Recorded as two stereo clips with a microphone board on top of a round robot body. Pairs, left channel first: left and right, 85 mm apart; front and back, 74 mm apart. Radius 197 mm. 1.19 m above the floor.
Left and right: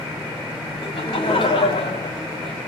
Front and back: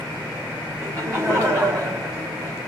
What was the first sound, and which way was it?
Laughter, 120° left.